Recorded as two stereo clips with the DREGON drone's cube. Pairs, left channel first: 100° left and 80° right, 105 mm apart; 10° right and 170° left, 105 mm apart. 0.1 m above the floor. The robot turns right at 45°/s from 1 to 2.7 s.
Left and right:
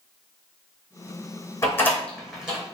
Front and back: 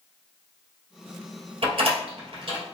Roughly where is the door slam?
Behind.